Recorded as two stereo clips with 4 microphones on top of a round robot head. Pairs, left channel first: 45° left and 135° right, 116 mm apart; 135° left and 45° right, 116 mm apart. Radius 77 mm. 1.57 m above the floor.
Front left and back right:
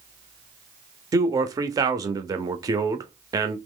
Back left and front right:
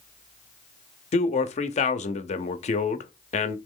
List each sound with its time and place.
1.1 s a man speaking: 160° left, 0.7 m